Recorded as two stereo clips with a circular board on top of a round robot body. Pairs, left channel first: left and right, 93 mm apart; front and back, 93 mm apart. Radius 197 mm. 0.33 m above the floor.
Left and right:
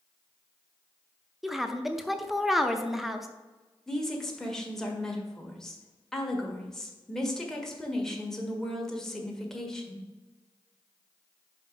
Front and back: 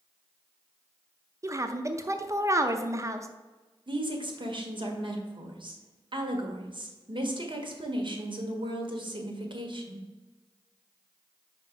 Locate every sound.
1.4 s a woman speaking: 175° right, 0.9 m
3.9 s a woman speaking: 175° left, 1.8 m